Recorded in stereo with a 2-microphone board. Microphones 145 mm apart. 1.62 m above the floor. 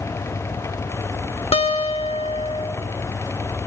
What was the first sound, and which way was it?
A guitar, 40° left (ahead or behind).